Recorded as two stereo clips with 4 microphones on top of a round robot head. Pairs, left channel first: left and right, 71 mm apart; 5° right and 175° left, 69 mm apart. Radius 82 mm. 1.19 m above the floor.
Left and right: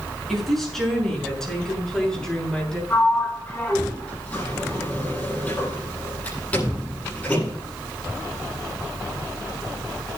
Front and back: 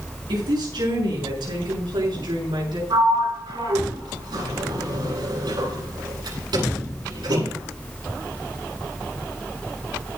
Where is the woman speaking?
Straight behind, 7.5 m; by 2.8 s 170° left, 9 m.